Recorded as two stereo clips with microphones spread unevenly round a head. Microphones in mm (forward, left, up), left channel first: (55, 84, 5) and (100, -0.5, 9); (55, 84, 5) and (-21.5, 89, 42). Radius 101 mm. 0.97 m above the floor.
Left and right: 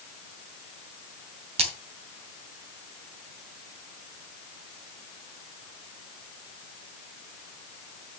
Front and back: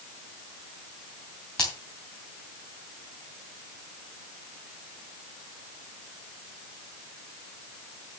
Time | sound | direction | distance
1.6 | a splash | 95° right | 3 m